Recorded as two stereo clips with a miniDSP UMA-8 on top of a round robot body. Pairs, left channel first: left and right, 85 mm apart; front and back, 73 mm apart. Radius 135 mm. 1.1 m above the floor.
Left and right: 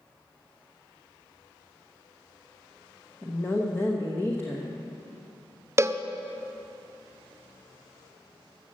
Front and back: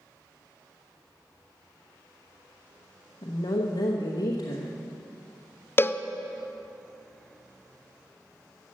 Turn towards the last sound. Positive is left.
turn(degrees=-45)